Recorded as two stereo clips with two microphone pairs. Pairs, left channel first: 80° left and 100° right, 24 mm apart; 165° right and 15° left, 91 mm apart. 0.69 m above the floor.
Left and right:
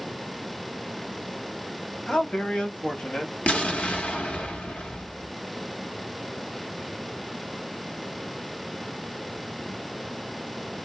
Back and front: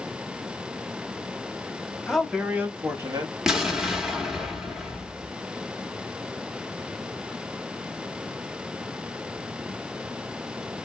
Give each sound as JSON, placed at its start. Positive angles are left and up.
{"t": 2.1, "sound": "a man speaking", "azimuth_deg": 115, "distance_m": 0.9}
{"t": 3.5, "sound": "an explosion", "azimuth_deg": 100, "distance_m": 1.0}